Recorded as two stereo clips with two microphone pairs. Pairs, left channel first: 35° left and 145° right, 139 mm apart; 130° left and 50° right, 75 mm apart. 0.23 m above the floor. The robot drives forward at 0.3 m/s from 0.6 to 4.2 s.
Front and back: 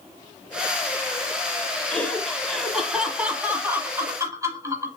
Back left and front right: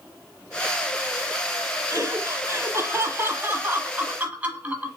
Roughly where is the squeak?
I don't hear a squeak.